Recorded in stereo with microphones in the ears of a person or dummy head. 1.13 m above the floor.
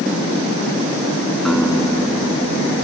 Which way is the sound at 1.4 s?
5° left (ahead or behind).